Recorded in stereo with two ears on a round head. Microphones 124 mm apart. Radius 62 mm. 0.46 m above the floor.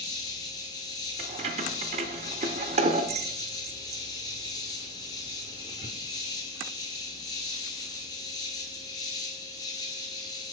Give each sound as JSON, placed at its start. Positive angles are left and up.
{"t": 0.0, "sound": "an insect", "side_deg": 30, "distance_m": 1.2}
{"t": 1.2, "sound": "keys jangling", "side_deg": -45, "distance_m": 0.7}